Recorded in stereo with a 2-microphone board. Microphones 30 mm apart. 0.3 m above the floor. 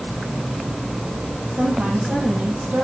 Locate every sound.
1.5 s a woman speaking: 70° right (ahead or behind), 8.5 m